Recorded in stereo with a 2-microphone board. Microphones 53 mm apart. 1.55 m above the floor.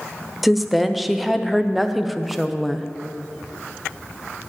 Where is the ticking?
I don't hear ticking.